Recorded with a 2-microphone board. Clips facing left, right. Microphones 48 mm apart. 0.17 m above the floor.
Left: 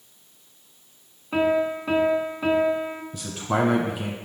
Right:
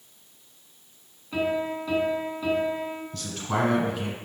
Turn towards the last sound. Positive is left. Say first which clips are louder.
# left 4 dB
turn(degrees=15)  # may be behind; listen again after turning